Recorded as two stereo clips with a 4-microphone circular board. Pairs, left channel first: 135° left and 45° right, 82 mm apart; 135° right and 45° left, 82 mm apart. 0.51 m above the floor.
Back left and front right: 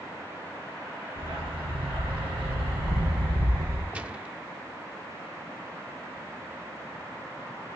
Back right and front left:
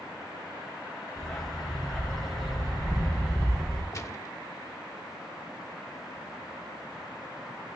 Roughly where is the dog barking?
Ahead right.